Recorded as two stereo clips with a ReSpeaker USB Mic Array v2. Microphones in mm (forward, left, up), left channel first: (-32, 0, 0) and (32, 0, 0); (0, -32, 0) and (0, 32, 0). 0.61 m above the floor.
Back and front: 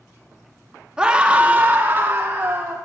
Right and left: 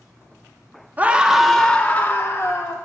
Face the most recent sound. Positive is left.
turn(degrees=-55)